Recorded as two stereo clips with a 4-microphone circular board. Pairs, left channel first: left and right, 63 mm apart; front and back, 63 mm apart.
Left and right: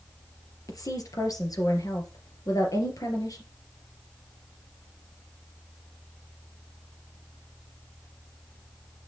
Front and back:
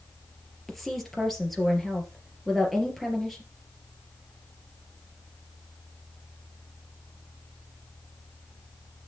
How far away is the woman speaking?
About 3 m.